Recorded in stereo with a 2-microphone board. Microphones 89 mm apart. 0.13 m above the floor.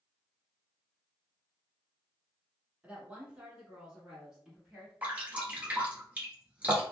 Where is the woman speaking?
15° right (ahead or behind), 1.2 m; by 4.9 s 5° right (ahead or behind), 1.4 m.